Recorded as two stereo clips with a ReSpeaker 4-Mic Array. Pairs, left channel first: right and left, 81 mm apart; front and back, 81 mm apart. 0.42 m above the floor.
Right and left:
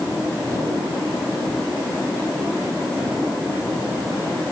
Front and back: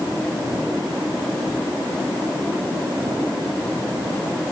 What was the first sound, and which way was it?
Only background noise.